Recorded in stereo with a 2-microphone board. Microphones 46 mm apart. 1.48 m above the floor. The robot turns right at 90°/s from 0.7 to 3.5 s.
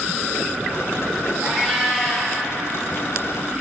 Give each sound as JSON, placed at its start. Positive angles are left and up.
{"t": 1.4, "sound": "a cat meowing", "azimuth_deg": -55, "distance_m": 0.9}